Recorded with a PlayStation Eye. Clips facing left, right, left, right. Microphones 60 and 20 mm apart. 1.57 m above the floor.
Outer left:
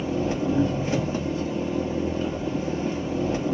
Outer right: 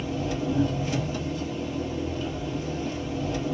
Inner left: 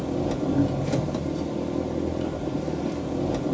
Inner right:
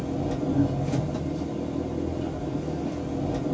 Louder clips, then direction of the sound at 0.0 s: Outer left 4 dB, inner left 2 dB; 30° left (ahead or behind).